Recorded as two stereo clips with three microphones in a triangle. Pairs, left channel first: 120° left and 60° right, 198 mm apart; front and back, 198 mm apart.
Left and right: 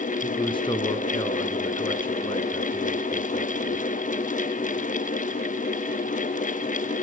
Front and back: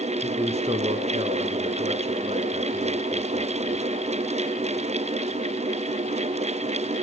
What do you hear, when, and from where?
0.2 s a man speaking: 165° left, 1.3 m